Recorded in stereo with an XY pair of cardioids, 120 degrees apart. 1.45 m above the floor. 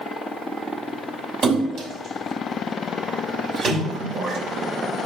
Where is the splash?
65° right, 5 m.